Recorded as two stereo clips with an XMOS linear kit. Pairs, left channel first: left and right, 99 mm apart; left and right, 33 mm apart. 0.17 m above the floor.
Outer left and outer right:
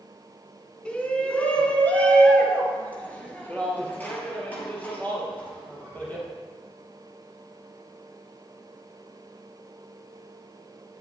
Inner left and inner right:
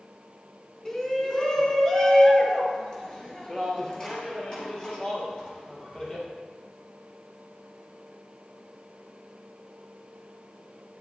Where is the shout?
10° left (ahead or behind), 1.5 m; by 6.2 s 20° left (ahead or behind), 4 m.